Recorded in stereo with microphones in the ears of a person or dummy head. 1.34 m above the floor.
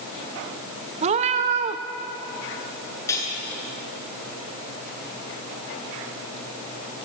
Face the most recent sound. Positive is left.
turn(degrees=15)  # may be behind; listen again after turning